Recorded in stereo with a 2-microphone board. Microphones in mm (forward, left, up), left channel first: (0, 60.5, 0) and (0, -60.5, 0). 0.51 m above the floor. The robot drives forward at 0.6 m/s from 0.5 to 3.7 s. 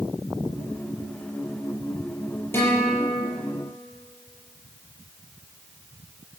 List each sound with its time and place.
2.5 s a guitar: 20° left (ahead or behind), 7 m